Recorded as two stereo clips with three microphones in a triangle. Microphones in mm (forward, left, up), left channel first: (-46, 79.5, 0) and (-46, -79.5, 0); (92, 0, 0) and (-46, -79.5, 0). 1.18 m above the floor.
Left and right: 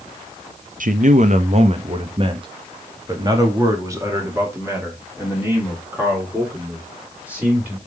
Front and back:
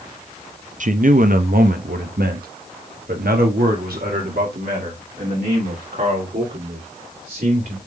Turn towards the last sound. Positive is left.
turn(degrees=-170)